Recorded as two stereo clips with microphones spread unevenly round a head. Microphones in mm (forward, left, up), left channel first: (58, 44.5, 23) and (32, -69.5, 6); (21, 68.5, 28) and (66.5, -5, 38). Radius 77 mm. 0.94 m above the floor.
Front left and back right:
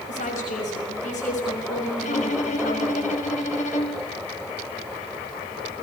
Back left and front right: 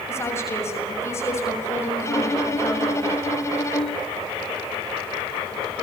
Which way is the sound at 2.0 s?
65° left.